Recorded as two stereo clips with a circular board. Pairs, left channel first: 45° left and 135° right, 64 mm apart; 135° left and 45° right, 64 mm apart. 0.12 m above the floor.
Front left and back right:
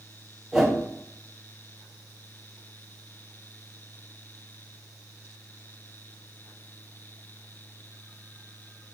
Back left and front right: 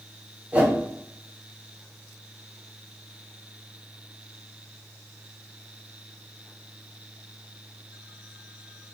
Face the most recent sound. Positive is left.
turn(degrees=-70)